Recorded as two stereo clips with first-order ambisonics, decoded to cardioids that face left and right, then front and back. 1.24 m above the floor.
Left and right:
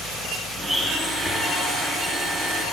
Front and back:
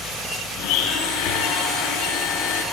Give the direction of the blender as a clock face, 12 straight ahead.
12 o'clock.